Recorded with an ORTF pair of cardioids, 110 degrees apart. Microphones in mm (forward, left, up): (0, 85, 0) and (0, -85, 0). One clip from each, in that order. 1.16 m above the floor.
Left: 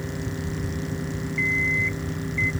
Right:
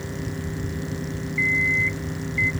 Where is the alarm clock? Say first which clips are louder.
Right 2 dB; 10° right.